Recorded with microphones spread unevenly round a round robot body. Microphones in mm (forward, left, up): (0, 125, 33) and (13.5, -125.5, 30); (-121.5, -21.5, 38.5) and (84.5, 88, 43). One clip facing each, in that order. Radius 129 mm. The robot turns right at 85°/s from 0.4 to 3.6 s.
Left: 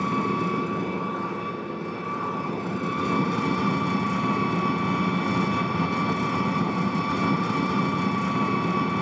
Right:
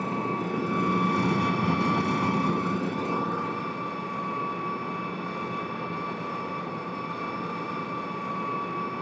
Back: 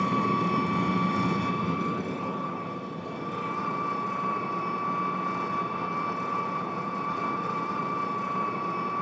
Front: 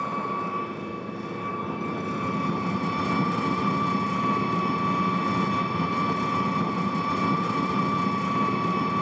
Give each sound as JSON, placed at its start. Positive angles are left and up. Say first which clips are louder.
{"t": 0.0, "sound": "an engine running", "louder": "left 4 dB, back 5 dB", "azimuth_deg": 160, "distance_m": 1.5}